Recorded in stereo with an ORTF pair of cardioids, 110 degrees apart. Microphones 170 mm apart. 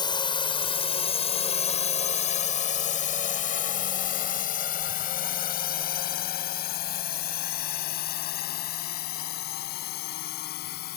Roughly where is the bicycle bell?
No bicycle bell in this recording.